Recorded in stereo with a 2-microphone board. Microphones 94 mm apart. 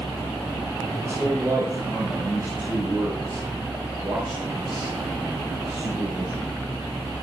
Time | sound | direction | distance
1.0 | a man speaking | 30° right (ahead or behind) | 6 m